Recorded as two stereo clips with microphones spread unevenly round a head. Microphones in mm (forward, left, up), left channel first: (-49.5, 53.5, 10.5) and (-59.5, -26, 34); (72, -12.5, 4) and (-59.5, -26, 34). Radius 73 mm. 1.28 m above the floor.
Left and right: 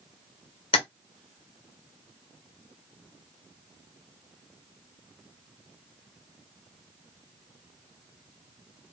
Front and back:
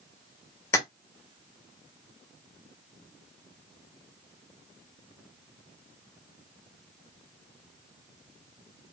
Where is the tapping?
85° left, 0.9 m.